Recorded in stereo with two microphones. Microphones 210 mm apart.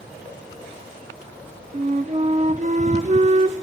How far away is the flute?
About 0.5 m.